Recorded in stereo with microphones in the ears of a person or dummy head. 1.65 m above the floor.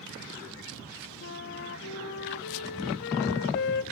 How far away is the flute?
About 1.0 m.